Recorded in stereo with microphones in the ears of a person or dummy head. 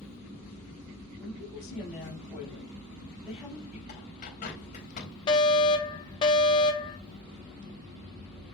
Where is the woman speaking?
Centre (ahead or behind), 6.5 m.